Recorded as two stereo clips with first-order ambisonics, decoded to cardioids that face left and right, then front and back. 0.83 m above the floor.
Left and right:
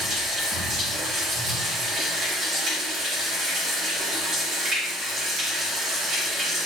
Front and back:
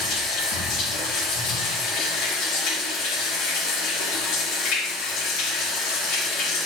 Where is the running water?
30° right, 1.7 m.